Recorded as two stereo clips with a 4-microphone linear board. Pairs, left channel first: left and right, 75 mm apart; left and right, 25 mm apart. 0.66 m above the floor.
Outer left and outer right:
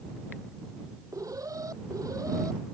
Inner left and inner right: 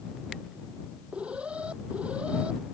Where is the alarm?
50° right (ahead or behind).